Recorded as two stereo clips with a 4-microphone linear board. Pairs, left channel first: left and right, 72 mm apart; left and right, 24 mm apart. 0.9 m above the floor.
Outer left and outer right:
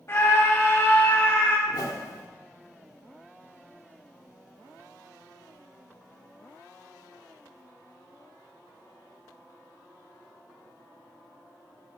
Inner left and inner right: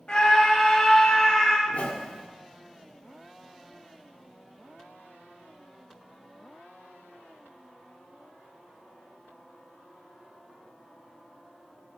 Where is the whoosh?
75° left (ahead or behind), 2 m.